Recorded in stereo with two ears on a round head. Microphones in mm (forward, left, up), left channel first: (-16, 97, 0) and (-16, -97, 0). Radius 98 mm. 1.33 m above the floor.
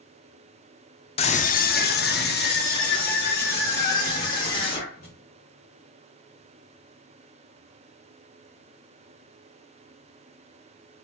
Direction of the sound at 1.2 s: 25° left (ahead or behind).